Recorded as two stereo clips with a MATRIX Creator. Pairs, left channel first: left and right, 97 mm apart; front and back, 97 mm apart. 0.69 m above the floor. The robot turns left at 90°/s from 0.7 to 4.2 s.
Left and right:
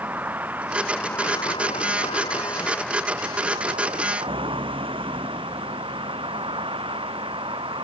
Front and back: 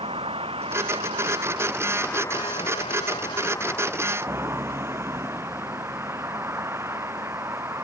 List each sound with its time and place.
0.0 s a vehicle: 160° right; by 7.8 s 115° right